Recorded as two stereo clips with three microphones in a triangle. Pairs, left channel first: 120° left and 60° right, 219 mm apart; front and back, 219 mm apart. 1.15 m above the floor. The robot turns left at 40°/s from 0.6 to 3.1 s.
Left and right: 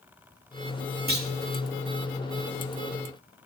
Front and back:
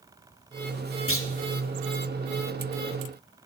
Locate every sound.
1.1 s a clunk: 15° right, 2.5 m; by 1.3 s 20° right, 2.5 m